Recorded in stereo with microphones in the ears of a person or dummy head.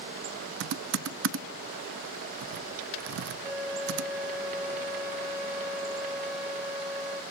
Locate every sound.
0.6 s typing on a keyboard: 65° right (ahead or behind), 0.6 m
3.4 s a flute: 10° right (ahead or behind), 4.5 m